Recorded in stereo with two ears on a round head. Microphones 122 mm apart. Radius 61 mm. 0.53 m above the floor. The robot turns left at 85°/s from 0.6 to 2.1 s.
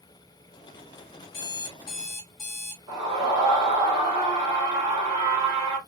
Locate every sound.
1.3 s an alarm clock: 85° left, 1.4 m; by 2.8 s 20° left, 1.4 m
2.9 s a scream: 30° right (ahead or behind), 2.5 m